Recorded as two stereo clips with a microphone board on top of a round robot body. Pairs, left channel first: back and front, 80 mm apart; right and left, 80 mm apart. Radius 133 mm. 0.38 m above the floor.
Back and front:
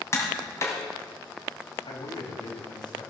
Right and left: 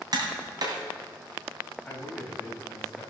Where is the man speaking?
175° right, 4 m.